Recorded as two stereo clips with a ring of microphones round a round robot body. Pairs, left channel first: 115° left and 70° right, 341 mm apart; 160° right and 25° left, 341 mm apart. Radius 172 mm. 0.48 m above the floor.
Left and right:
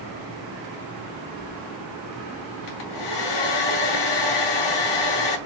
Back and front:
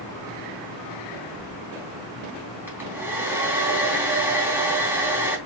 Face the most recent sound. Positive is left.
turn(degrees=105)